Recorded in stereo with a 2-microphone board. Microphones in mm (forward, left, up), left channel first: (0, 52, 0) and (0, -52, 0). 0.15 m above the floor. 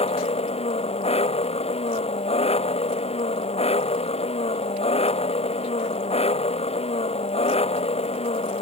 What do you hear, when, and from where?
0.0 s an engine running: 80° left